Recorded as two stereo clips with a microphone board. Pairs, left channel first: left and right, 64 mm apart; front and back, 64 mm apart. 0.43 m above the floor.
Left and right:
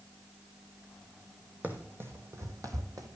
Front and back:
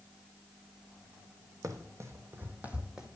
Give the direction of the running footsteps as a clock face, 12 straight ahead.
5 o'clock.